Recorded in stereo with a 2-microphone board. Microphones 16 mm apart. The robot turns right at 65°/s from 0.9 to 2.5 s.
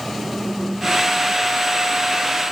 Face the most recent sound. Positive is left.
No sound to turn to.